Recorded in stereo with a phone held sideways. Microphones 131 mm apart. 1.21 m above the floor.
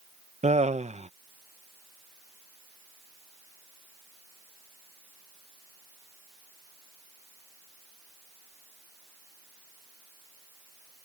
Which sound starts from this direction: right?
Laughter, at 0.4 s.